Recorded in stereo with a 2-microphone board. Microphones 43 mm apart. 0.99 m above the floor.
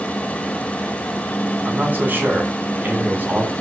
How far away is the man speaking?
About 8.5 m.